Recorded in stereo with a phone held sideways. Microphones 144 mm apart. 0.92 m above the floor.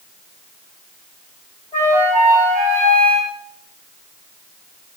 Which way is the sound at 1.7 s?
20° left (ahead or behind).